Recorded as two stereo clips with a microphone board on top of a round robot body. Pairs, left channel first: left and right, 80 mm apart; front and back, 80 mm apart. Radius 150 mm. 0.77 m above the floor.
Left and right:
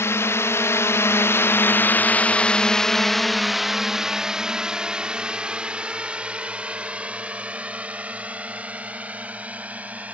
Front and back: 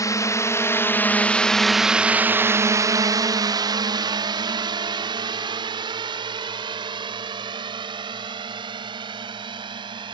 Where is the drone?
40° left; by 10.1 s 160° right.